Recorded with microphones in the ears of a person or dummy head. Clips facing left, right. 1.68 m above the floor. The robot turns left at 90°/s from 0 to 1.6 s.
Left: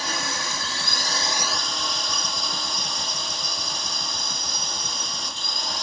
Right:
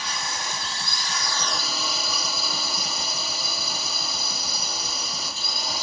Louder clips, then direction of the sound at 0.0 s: Left 3 dB; 140° left.